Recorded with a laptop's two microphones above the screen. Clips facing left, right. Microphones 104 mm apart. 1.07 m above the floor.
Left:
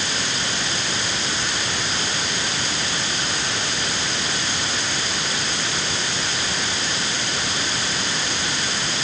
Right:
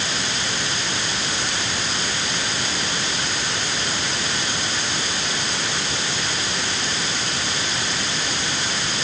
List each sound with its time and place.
Only background noise.